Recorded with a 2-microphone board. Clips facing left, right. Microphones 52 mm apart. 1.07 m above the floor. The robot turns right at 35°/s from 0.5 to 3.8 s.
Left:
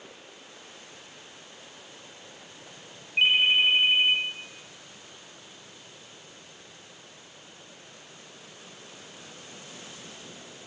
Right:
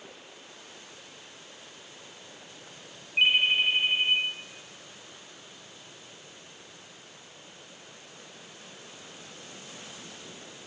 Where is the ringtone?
5° left (ahead or behind), 0.5 m; by 4.2 s 25° left (ahead or behind), 0.5 m.